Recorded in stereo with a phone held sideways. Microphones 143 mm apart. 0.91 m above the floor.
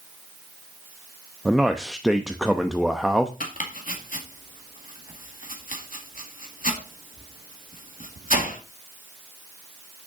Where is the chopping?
65° left (ahead or behind), 2.0 m.